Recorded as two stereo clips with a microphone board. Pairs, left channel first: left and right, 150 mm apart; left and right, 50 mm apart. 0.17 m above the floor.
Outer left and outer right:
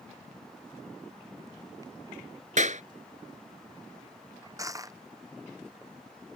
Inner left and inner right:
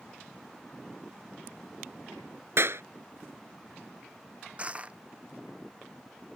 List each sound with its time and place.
2.6 s a clap: 55° right (ahead or behind)
4.6 s crushing: 25° right (ahead or behind)